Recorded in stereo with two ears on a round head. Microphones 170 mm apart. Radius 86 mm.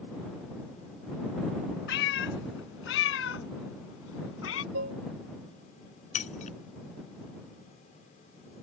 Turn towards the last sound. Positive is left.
turn(degrees=35)  # may be behind; listen again after turning